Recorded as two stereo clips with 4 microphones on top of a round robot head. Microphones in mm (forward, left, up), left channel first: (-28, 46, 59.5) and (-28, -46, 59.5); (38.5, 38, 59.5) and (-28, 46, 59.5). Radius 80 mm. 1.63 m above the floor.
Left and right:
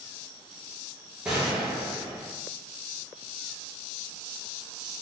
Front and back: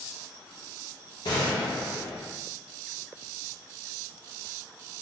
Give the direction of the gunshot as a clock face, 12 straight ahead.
12 o'clock.